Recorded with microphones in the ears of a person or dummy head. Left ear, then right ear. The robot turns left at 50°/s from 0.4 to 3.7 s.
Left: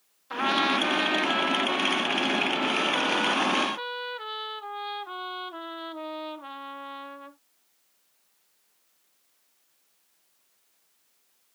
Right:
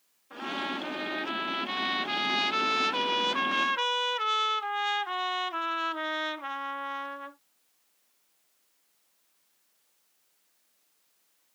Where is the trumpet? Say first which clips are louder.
Left 10 dB; 45° left; by 7.4 s 120° right.